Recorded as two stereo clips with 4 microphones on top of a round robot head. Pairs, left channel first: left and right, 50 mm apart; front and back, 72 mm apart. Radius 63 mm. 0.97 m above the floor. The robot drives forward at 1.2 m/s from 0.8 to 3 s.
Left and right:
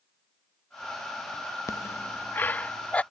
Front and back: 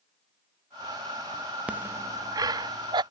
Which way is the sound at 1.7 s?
105° left.